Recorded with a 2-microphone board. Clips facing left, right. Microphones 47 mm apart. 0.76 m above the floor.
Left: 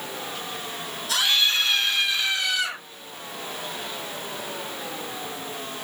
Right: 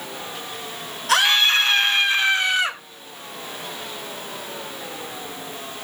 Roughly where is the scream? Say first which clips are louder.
Right 6 dB; right.